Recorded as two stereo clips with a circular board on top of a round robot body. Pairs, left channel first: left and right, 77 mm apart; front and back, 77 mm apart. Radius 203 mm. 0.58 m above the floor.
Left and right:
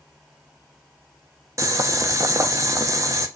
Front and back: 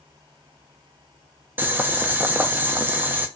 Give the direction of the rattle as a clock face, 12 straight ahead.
No rattle in this recording.